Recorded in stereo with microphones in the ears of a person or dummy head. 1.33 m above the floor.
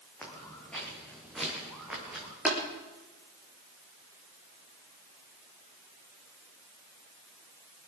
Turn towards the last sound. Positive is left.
turn(degrees=-5)  # may be behind; listen again after turning